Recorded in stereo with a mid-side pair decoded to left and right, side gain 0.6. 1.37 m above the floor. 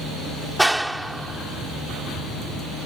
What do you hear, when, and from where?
0.6 s a clap: 5° right